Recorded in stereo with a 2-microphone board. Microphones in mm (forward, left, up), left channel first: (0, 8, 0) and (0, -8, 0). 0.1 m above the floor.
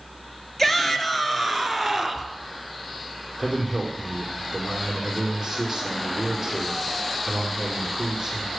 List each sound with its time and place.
0.6 s a shout: 25° left (ahead or behind), 1.8 m; by 2.3 s 10° right (ahead or behind), 1.7 m
3.4 s a man speaking: 10° right (ahead or behind), 4 m